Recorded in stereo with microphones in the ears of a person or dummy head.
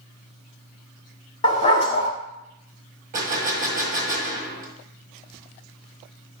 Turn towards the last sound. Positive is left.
turn(degrees=-50)  # may be behind; listen again after turning